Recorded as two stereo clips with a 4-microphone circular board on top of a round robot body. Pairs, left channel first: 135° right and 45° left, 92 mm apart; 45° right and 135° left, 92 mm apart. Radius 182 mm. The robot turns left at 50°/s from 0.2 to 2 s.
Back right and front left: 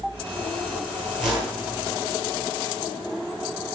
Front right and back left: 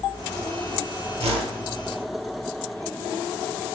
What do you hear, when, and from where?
1.2 s a whoosh: 135° left, 7 m; by 1.6 s 115° left, 7 m